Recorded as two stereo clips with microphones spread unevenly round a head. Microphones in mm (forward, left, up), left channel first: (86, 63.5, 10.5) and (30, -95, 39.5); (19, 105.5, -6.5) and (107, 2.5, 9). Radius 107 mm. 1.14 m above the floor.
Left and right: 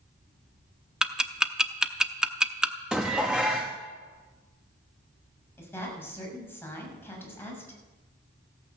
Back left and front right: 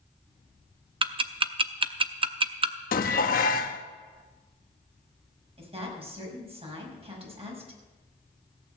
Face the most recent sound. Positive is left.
turn(degrees=-5)